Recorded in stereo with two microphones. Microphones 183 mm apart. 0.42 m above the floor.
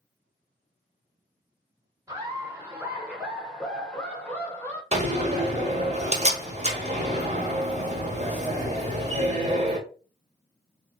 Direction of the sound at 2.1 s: 15° right (ahead or behind).